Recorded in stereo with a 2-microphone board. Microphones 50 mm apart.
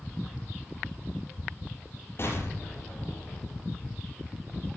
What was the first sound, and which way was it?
An explosion, 50° left (ahead or behind).